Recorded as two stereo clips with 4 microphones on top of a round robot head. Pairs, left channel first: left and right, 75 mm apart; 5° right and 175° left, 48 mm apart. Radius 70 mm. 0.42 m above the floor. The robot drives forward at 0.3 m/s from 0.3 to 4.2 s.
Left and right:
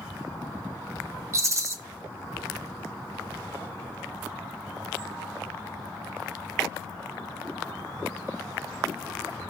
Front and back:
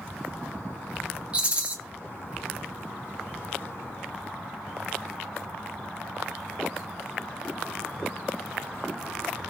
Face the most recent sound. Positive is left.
turn(degrees=-150)